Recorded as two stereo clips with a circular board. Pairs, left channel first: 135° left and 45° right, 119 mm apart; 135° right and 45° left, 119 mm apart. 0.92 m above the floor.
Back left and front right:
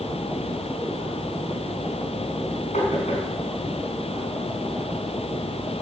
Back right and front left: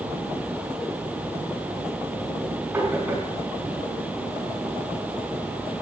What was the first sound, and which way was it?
Knocking, 115° left.